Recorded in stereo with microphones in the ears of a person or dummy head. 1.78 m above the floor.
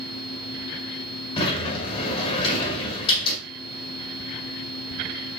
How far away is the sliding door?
About 1.8 m.